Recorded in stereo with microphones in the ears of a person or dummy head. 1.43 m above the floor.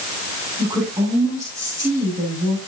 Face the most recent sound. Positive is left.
turn(degrees=-15)  # may be behind; listen again after turning